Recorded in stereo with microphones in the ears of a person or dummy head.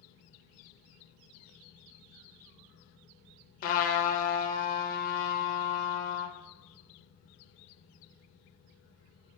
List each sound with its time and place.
3.6 s a trumpet: 50° left (ahead or behind), 0.5 m